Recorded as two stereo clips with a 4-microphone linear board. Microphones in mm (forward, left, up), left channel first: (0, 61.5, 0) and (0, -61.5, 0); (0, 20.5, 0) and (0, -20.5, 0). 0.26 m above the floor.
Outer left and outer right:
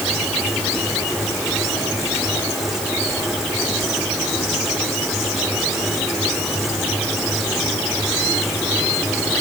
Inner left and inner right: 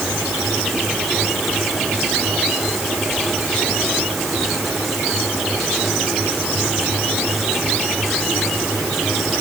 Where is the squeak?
I don't hear a squeak.